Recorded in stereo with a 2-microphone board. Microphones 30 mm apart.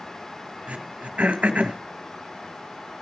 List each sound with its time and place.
0.7 s throat clearing: 50° right (ahead or behind), 2 m